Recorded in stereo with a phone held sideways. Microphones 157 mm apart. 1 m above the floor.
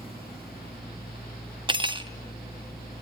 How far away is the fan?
About 5 m.